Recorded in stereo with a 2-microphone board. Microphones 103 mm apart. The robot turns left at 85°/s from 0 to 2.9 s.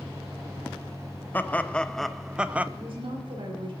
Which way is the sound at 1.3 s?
20° left (ahead or behind).